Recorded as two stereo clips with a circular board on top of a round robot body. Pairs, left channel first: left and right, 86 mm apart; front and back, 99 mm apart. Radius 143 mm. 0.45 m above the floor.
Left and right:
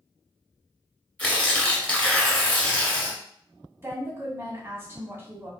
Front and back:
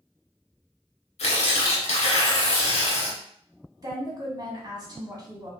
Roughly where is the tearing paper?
Ahead.